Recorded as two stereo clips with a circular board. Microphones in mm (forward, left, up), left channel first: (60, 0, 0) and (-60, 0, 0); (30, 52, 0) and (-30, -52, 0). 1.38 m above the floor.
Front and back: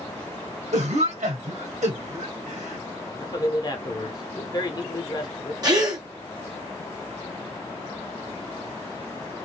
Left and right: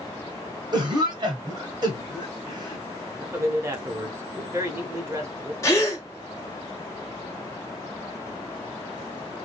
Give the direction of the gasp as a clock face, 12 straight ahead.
8 o'clock.